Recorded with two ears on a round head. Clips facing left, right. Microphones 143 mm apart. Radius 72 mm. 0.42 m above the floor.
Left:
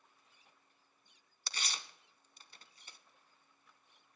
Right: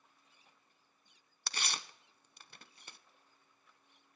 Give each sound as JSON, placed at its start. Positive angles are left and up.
{"t": 1.5, "sound": "tearing paper", "side_deg": -50, "distance_m": 0.6}